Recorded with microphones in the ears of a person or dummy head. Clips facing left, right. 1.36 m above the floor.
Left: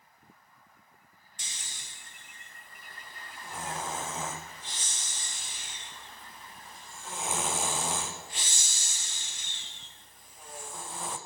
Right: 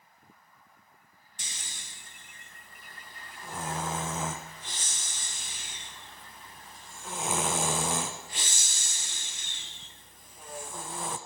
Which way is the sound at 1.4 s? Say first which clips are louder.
Right 2 dB; 45° right (ahead or behind).